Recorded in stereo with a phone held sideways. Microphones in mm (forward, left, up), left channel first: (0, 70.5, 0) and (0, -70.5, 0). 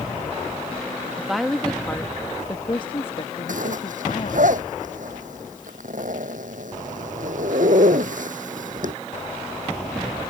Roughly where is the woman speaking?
Centre.